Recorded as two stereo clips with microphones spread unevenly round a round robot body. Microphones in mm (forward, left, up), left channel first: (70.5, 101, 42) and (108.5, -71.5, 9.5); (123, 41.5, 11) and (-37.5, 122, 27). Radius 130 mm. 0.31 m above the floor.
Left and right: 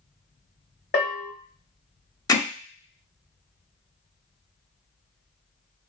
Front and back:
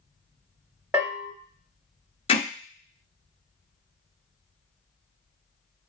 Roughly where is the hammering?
Ahead left.